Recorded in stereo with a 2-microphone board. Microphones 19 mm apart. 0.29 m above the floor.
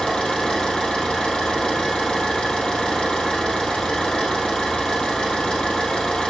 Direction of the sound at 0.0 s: 40° left (ahead or behind).